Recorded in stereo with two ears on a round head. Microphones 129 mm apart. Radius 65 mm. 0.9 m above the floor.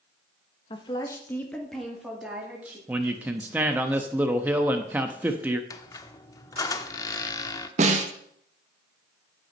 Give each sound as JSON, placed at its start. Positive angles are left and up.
{"t": 0.7, "sound": "a woman speaking", "side_deg": 35, "distance_m": 1.3}
{"t": 2.9, "sound": "a man speaking", "side_deg": -10, "distance_m": 0.8}
{"t": 5.7, "sound": "a squeak", "side_deg": 25, "distance_m": 0.6}
{"t": 7.8, "sound": "a snare drum", "side_deg": -50, "distance_m": 1.3}